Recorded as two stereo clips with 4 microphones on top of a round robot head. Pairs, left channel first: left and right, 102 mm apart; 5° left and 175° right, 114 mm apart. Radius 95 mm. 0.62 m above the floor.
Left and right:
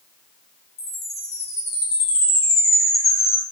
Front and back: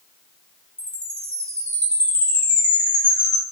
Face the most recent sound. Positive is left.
turn(degrees=85)